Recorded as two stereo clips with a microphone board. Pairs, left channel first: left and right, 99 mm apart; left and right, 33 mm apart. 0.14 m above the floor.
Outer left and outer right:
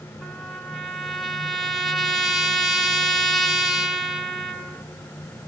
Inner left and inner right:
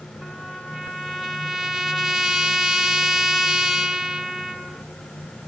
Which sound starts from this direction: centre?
A trumpet, at 0.2 s.